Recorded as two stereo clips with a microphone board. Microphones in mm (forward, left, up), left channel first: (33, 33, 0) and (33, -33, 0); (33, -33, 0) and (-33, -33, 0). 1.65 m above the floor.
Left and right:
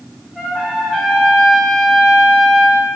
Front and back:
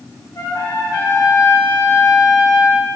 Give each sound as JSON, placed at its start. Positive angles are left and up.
{"t": 0.3, "sound": "a trumpet", "azimuth_deg": -15, "distance_m": 2.5}